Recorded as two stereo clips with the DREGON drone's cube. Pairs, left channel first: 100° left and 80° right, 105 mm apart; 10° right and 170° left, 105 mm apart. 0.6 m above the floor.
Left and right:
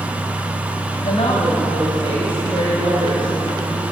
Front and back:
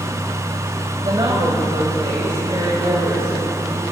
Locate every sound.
1.0 s a woman speaking: 120° left, 3.5 m; by 3.8 s 150° left, 7 m